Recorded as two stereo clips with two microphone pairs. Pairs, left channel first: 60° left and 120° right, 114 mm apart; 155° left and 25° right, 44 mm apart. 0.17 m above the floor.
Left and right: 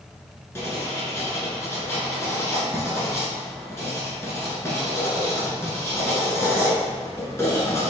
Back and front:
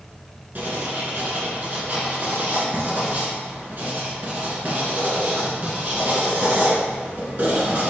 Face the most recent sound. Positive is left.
turn(degrees=0)